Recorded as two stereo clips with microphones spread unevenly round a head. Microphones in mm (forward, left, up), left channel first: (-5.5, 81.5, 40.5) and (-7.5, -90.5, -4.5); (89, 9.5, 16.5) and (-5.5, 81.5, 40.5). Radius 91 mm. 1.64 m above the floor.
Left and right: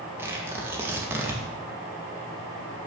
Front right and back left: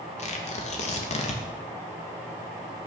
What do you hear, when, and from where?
0.2 s tearing paper: 10° right, 2 m